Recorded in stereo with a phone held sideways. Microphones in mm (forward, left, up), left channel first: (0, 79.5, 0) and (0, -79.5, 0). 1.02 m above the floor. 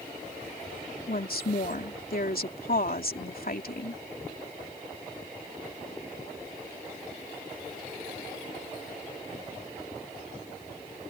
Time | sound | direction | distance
1.1 | a woman speaking | 70° left (ahead or behind) | ?